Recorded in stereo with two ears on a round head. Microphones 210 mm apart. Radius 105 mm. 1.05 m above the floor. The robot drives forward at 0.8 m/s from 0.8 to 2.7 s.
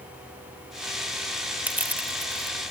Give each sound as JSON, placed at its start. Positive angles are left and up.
{"t": 1.7, "sound": "crushing", "side_deg": -10}